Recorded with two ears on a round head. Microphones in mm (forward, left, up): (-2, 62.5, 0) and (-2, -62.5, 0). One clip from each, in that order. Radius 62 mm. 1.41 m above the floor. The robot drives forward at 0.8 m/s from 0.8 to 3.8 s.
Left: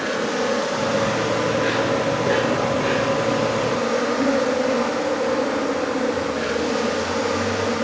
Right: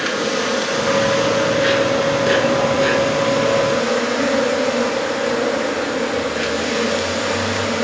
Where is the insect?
70° right (ahead or behind), 10 m; by 7.8 s 55° right (ahead or behind), 11 m.